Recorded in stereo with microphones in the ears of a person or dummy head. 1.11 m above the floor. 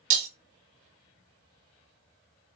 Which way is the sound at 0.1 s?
45° right (ahead or behind).